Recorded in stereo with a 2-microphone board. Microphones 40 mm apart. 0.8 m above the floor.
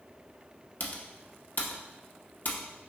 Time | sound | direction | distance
0.8 | typing on a keyboard | 50° left (ahead or behind) | 0.7 m